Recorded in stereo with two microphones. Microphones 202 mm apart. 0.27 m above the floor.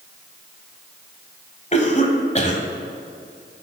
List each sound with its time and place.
1.7 s a cough: 35° left (ahead or behind), 1.4 m